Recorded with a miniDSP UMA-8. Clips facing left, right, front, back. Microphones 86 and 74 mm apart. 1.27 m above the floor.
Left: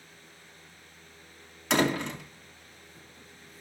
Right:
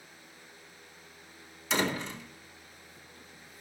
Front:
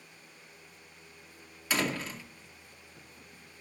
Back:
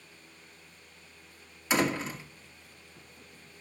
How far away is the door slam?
About 2.0 m.